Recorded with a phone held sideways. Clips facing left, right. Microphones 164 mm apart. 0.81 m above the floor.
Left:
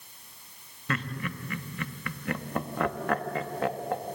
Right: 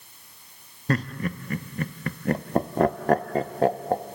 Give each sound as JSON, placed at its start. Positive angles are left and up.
{"t": 0.9, "sound": "laughter", "side_deg": -35, "distance_m": 0.8}